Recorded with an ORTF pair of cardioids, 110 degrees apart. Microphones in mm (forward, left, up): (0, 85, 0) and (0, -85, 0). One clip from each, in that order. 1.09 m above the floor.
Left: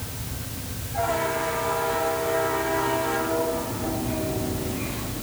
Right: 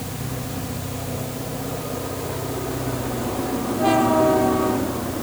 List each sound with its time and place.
Only background noise.